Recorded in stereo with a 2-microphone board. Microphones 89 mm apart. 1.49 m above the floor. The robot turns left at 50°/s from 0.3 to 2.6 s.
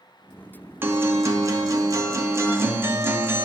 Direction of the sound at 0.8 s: 45° right.